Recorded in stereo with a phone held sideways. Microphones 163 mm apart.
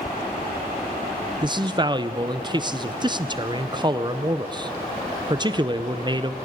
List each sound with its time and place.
1.4 s a man speaking: 30° right (ahead or behind), 0.6 m